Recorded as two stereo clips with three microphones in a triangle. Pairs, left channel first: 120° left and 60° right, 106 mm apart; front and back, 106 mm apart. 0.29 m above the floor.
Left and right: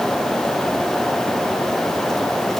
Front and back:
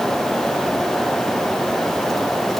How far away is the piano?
No piano in this recording.